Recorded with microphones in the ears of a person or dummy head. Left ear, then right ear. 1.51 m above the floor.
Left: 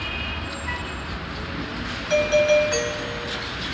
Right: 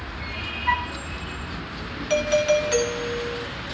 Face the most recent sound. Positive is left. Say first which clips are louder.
# left 2 dB
turn(degrees=-20)  # may be behind; listen again after turning